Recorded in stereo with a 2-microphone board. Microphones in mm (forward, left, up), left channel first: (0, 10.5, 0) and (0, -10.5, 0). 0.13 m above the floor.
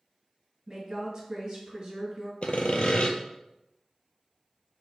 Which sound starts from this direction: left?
Sawing, at 2.4 s.